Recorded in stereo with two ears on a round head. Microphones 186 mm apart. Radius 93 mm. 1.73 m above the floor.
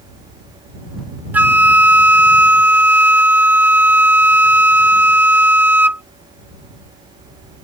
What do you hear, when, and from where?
1.3 s a flute: 10° right (ahead or behind)